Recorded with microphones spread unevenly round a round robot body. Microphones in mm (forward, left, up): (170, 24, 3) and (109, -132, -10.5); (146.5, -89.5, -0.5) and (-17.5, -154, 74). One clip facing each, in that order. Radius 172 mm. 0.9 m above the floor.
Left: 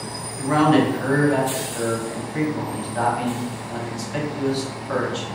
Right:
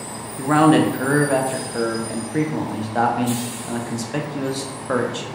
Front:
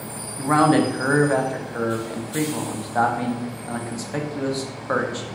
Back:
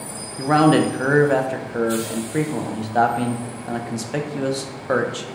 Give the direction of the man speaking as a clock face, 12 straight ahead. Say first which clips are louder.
Right 2 dB, back 2 dB; 3 o'clock.